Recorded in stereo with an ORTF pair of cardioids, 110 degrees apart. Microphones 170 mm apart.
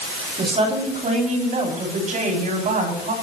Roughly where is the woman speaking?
Ahead right.